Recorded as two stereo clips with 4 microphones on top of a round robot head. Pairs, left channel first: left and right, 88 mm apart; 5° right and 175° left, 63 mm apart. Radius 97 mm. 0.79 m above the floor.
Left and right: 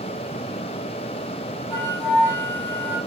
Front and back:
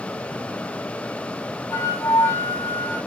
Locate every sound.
1.7 s a flute: 25° left, 7 m